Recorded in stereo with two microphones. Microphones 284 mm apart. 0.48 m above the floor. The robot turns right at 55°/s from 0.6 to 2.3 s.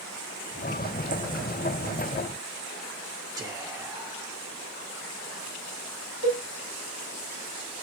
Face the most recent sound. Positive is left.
turn(degrees=-55)  # may be behind; listen again after turning